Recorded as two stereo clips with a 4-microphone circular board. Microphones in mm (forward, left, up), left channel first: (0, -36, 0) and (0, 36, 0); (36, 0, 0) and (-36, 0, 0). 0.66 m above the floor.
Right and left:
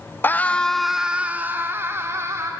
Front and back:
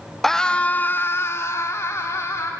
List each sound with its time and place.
0.2 s a scream: 85° right, 1.0 m; by 2.5 s 45° left, 2.5 m